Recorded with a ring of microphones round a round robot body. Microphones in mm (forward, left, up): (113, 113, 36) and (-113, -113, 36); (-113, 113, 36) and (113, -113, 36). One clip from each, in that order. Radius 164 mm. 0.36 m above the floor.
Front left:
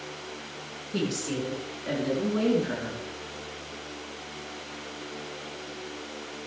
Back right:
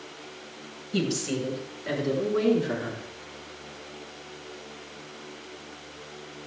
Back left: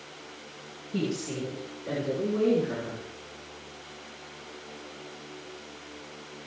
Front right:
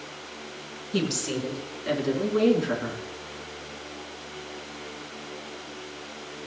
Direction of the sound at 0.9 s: 60° right.